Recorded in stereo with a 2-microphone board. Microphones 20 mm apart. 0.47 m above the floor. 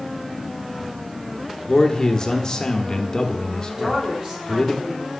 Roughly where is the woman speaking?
Right.